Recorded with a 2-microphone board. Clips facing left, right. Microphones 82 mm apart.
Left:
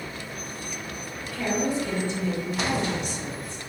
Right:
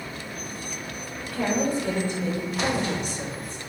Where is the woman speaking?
50° right (ahead or behind), 2.5 m.